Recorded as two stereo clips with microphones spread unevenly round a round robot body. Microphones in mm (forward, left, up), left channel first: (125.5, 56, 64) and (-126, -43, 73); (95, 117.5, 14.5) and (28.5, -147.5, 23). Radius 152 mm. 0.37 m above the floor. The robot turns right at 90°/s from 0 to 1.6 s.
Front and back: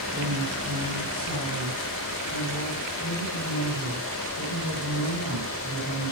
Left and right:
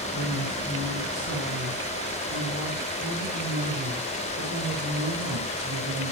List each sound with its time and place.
0.1 s a woman speaking: 100° left, 3.5 m; by 6.1 s 130° right, 3.5 m